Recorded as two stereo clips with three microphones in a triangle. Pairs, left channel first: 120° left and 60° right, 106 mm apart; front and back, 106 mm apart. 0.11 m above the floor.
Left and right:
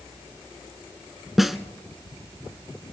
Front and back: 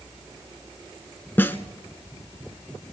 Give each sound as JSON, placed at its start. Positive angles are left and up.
{"t": 1.4, "sound": "a snare drum", "azimuth_deg": 25, "distance_m": 0.7}